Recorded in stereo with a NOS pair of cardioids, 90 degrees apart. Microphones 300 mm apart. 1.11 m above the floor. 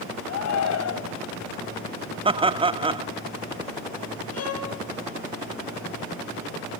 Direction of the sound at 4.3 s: 60° left.